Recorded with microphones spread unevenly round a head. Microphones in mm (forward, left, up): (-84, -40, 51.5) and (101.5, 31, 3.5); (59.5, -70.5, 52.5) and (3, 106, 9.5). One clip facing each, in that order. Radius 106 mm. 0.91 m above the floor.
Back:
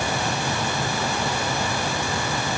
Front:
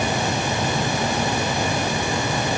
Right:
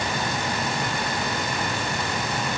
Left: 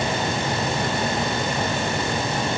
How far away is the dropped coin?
I don't hear a dropped coin.